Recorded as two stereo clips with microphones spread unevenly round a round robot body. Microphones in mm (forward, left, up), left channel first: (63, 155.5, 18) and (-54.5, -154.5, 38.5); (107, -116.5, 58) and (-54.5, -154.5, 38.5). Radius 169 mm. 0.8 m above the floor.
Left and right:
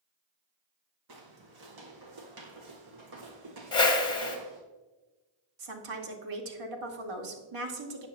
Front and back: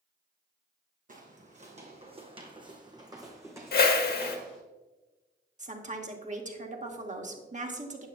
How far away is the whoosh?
About 1.3 m.